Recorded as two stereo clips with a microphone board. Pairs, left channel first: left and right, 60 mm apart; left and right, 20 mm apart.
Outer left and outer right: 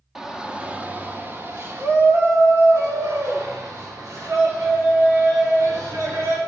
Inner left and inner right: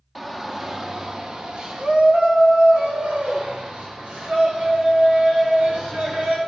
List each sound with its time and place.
0.1 s a shout: 10° right (ahead or behind), 0.9 m; by 6.4 s 75° right (ahead or behind), 3.5 m